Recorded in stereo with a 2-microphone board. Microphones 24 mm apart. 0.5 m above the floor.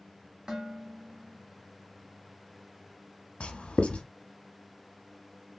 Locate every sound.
0.5 s dishes clattering: 15° right (ahead or behind), 0.8 m
3.4 s writing: 55° left (ahead or behind), 0.6 m